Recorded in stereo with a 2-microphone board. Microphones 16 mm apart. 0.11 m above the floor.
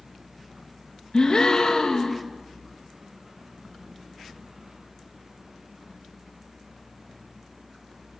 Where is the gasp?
50° left (ahead or behind), 4 m.